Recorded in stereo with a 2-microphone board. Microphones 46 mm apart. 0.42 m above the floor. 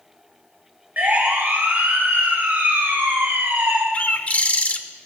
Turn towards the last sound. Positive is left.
turn(degrees=30)  # may be behind; listen again after turning